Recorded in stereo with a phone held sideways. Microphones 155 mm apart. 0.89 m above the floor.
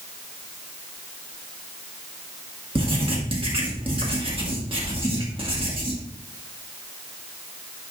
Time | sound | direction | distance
2.8 | writing | 35° right (ahead or behind) | 1.7 m